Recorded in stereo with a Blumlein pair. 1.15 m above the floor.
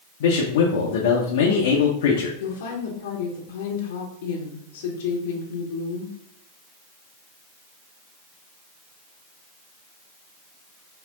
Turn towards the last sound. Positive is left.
turn(degrees=55)